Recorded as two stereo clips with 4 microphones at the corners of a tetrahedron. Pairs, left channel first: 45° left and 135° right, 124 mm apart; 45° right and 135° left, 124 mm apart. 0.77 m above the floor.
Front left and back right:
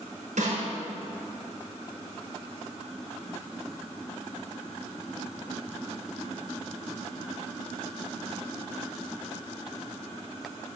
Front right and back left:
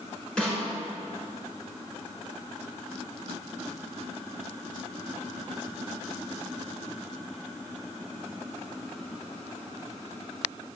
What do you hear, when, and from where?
0.4 s a snare drum: 130° right, 6 m